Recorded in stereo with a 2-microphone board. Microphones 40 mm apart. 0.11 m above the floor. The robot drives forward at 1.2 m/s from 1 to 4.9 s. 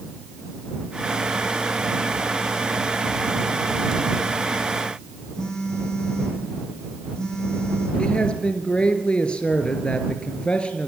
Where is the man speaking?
25° left (ahead or behind), 2.5 m.